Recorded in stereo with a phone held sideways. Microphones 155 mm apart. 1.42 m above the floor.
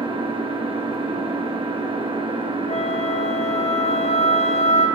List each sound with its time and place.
0.0 s an engine running: 35° right (ahead or behind), 1.2 m
2.7 s a flute: 45° left (ahead or behind), 0.8 m